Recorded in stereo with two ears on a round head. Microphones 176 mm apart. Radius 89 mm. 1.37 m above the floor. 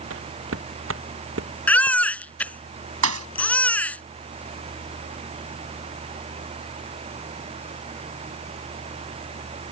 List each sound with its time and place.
0.1 s footsteps: 75° right (ahead or behind); by 2.6 s 70° right (ahead or behind)
1.7 s a baby crying: 10° left (ahead or behind)
3.0 s a thud: 80° right